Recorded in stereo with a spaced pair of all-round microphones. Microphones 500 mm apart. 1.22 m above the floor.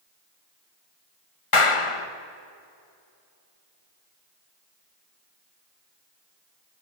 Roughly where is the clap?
Left.